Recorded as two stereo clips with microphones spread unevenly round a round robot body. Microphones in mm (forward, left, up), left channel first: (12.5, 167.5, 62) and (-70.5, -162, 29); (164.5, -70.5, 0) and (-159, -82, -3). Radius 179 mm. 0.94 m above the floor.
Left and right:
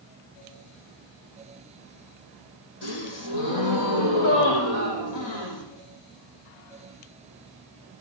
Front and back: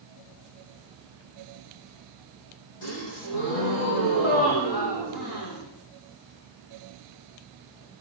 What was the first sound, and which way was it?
A gasp, 35° left.